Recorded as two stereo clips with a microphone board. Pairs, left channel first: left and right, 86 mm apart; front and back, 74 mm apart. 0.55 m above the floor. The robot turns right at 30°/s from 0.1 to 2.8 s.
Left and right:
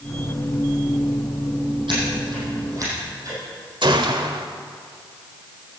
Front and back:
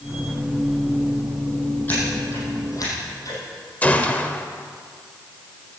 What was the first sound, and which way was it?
Scissors, 65° right.